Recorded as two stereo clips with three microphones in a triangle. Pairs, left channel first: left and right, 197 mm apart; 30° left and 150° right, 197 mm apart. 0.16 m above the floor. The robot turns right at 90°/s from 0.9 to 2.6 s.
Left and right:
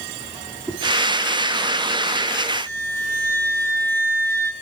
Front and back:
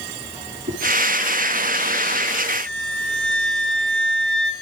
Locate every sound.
0.7 s a whoosh: straight behind, 3.5 m
2.7 s a flute: 55° right, 0.8 m